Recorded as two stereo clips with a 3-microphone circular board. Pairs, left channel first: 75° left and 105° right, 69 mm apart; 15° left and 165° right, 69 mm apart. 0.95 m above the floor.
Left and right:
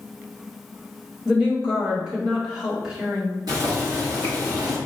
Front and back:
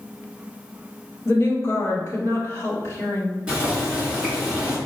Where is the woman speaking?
25° right, 1.5 m.